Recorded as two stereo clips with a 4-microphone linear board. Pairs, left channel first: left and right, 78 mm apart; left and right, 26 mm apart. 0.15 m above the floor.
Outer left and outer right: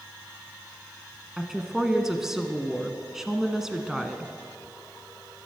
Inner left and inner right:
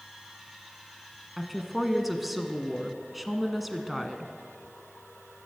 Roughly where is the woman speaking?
Centre.